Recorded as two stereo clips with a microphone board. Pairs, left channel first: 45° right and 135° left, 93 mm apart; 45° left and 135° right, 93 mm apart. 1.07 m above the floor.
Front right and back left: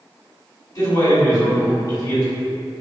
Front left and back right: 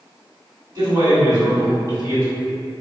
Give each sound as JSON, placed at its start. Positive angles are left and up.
{"t": 0.8, "sound": "a man speaking", "azimuth_deg": -95, "distance_m": 1.8}